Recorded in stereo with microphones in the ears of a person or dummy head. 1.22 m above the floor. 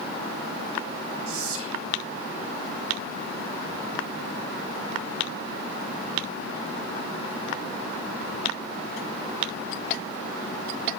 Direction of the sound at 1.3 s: 85° right.